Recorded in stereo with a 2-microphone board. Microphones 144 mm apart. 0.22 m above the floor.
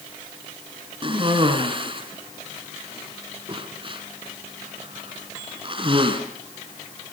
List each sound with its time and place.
1.0 s a cough: 35° right (ahead or behind), 3 m